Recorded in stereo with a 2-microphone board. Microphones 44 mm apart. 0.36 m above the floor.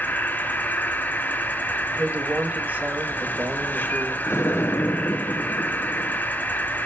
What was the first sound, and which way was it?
An insect, 45° left (ahead or behind).